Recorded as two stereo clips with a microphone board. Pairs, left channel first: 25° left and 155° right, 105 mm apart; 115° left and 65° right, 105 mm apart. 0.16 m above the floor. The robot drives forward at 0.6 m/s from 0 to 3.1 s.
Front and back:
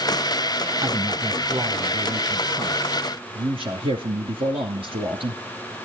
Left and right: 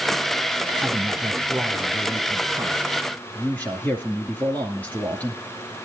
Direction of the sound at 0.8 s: 160° right.